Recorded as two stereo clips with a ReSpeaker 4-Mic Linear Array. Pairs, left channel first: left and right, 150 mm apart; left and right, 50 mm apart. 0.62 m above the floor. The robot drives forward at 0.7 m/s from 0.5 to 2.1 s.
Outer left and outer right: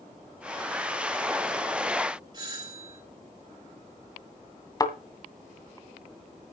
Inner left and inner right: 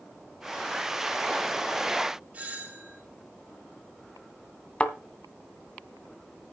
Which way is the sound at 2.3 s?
30° right (ahead or behind).